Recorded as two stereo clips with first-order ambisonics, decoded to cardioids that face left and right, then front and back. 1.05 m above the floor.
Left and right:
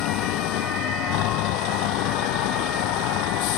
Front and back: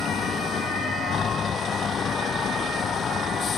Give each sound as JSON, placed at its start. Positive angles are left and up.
{"t": 0.0, "sound": "a vehicle", "azimuth_deg": 65}